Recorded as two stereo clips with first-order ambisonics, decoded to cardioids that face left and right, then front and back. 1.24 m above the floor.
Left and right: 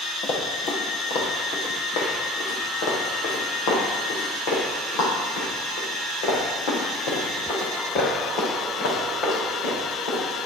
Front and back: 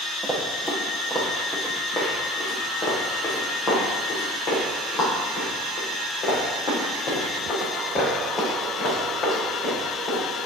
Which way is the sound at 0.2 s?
85° left.